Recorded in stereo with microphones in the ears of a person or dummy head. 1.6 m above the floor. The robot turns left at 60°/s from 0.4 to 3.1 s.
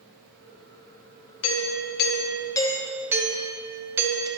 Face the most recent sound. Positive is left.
turn(degrees=-15)